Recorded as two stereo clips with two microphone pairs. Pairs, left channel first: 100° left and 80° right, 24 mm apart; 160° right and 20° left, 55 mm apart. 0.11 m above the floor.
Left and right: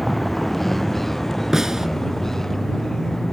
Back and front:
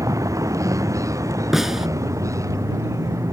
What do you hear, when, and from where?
0.0 s a vehicle: 20° left; by 3.3 s 30° left
1.5 s a snare drum: 60° right